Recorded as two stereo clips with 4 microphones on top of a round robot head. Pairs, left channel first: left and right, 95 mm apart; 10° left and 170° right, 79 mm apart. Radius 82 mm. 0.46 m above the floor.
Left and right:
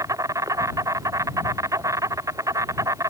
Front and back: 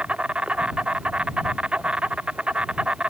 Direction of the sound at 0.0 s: 105° right.